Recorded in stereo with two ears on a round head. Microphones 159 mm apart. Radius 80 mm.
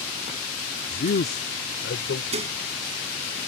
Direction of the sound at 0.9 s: 55° left (ahead or behind).